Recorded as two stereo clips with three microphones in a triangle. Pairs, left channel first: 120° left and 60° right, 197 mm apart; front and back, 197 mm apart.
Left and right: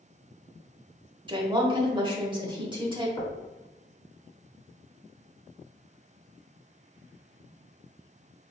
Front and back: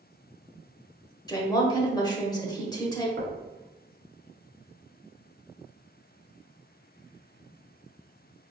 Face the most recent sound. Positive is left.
turn(degrees=-175)